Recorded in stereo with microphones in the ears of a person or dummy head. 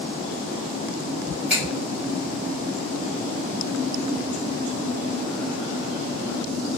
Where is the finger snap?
5° right (ahead or behind), 2 m.